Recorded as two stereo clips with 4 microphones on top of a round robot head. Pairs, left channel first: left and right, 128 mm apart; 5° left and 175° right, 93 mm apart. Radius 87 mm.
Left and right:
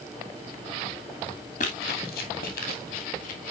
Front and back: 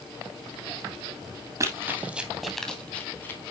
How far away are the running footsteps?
About 2 m.